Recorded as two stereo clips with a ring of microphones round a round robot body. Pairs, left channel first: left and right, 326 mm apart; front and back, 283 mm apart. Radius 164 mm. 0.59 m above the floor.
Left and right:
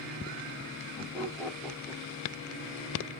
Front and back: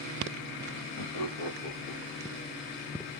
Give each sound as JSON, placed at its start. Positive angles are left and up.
{"t": 1.0, "sound": "laughter", "azimuth_deg": 20, "distance_m": 1.7}